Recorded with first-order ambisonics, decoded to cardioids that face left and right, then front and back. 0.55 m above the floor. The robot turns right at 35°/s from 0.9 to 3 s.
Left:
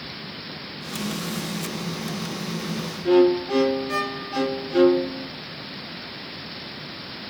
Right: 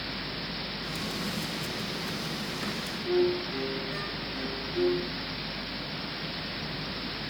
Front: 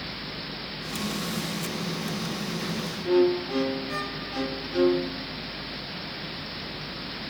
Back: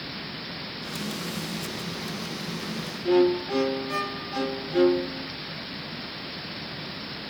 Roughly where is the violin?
Left.